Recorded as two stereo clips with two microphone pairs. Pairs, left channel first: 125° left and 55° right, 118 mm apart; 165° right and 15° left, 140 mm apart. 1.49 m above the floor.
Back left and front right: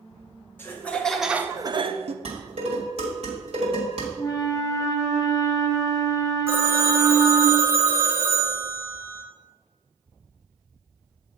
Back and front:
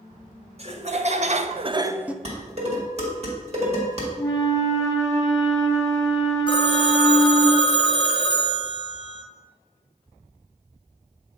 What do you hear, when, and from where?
0.6 s laughter: 55° left, 1.0 m; by 2.1 s 65° right, 0.6 m
2.2 s dishes clattering: 25° right, 2 m
4.2 s a flute: 150° left, 0.9 m
6.5 s a phone ringing: 120° right, 1.1 m